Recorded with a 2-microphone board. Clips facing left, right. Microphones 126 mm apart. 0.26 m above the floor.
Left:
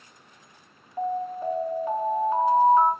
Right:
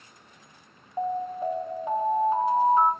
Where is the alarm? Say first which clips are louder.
Even; 20° right (ahead or behind), 2 m.